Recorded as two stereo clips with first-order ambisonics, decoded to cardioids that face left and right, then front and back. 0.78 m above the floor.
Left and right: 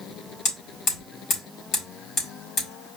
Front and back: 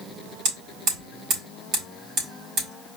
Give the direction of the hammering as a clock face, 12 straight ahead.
7 o'clock.